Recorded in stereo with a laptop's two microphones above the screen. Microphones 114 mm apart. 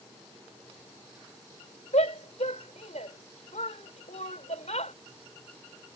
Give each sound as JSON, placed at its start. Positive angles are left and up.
{"t": 1.9, "sound": "a shout", "side_deg": 85}